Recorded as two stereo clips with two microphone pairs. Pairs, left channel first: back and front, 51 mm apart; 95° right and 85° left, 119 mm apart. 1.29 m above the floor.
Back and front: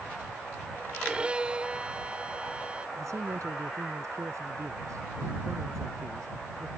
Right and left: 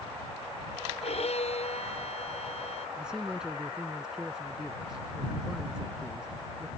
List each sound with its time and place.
1.0 s a violin: 70° right
3.0 s a man speaking: straight ahead